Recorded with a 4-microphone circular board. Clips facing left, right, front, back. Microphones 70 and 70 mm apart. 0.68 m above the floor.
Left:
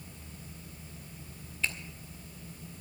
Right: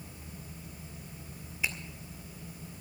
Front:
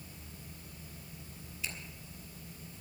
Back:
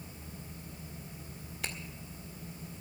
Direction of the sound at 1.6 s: 165° right.